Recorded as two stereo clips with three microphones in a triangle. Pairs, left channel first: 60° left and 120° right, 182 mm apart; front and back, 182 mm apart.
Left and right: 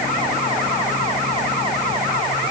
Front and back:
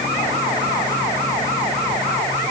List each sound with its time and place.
Only background noise.